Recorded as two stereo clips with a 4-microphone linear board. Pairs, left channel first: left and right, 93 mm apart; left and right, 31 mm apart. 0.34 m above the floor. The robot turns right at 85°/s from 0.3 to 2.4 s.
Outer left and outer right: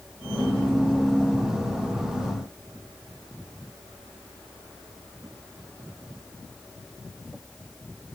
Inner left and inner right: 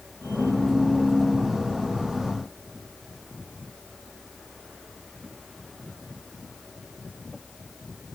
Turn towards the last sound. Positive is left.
No sound to turn to.